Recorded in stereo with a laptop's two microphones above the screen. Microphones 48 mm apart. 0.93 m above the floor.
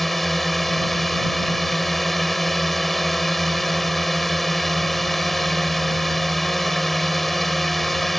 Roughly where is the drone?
Centre.